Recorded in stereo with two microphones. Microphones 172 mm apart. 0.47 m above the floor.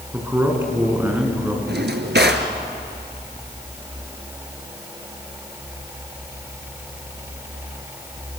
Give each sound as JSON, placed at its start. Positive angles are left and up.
{"t": 0.1, "sound": "a man speaking", "side_deg": -10, "distance_m": 5.5}
{"t": 1.7, "sound": "a drawer", "side_deg": -70, "distance_m": 2.0}